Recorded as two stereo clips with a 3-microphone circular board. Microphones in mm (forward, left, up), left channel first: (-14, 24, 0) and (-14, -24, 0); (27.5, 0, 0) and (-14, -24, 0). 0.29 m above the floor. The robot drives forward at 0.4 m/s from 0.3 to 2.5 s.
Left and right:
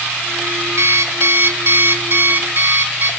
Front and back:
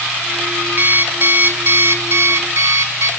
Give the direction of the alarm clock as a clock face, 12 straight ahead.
3 o'clock.